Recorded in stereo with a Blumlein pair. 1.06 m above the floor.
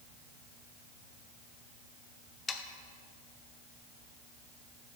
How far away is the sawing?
About 0.8 m.